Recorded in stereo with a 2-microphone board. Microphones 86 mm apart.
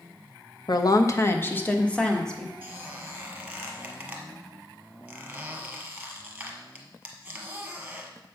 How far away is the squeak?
About 1.3 m.